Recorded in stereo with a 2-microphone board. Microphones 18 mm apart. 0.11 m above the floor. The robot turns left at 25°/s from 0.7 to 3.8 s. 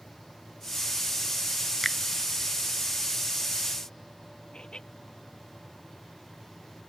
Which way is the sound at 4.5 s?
85° left.